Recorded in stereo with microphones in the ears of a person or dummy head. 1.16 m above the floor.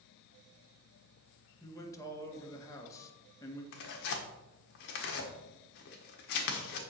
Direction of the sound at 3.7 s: 60° left (ahead or behind).